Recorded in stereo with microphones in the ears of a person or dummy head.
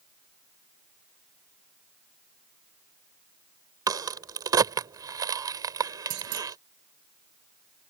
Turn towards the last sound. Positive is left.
turn(degrees=-75)  # may be behind; listen again after turning